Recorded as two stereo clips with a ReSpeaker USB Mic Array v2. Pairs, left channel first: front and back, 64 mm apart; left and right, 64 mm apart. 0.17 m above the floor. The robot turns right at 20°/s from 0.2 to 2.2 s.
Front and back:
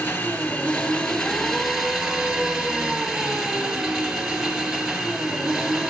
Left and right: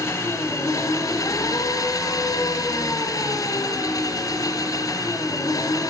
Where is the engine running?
60° left, 1.2 m; by 5.9 s 100° left, 1.2 m.